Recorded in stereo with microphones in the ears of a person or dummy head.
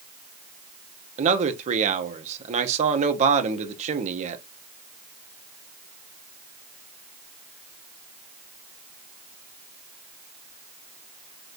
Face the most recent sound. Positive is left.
turn(degrees=-35)  # may be behind; listen again after turning